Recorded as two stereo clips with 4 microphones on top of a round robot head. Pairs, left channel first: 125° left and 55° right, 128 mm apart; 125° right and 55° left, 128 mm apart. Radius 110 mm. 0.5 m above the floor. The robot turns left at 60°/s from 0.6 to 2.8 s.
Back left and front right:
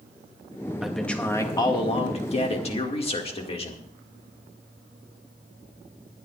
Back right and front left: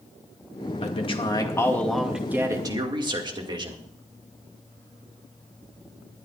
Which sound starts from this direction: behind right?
A man speaking, at 0.8 s.